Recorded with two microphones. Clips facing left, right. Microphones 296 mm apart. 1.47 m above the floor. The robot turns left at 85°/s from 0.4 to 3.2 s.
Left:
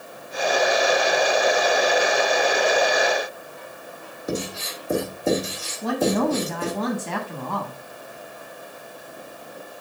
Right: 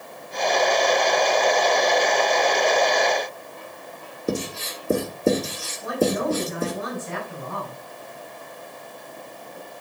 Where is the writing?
35° right (ahead or behind), 2.0 m.